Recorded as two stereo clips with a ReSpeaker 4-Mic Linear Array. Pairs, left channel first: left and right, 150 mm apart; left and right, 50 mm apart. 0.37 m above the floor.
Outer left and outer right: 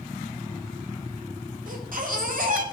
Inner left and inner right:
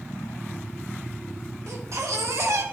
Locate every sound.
1.7 s a baby crying: 65° right (ahead or behind), 1.7 m